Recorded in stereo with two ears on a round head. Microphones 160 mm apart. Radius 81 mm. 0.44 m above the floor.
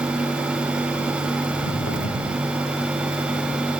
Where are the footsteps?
80° left, 3 m.